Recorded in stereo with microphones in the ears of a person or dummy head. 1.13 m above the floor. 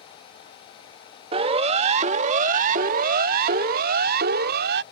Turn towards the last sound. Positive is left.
turn(degrees=-65)  # may be behind; listen again after turning